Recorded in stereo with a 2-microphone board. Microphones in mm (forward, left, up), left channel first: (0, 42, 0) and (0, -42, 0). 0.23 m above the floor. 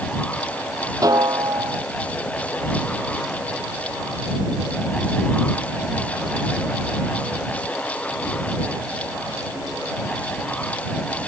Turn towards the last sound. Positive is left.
turn(degrees=-45)  # may be behind; listen again after turning